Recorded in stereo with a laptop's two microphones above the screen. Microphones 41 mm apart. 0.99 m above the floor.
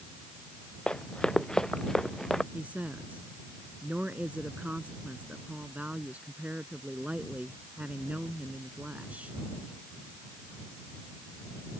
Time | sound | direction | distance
0.9 | running footsteps | 20° left (ahead or behind) | ?
2.5 | a woman speaking | 35° right (ahead or behind) | ?